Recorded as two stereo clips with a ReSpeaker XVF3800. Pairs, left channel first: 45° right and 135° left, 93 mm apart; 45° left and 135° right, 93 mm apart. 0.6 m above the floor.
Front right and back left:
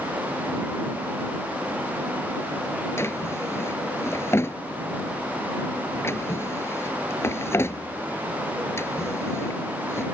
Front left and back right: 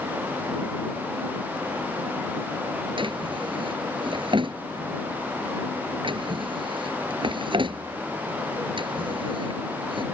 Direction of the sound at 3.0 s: 110° right.